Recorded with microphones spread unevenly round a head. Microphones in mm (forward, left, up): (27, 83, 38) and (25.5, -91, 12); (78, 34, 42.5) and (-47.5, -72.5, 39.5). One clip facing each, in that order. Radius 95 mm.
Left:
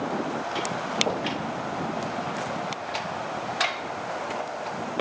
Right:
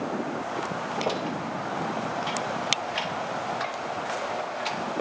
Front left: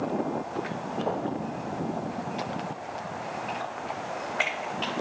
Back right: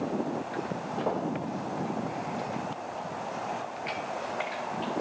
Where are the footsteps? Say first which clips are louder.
Left 1 dB, front left 1 dB; 165° left, 1.9 m.